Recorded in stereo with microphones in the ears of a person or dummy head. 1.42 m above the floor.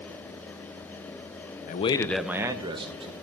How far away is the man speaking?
About 0.6 m.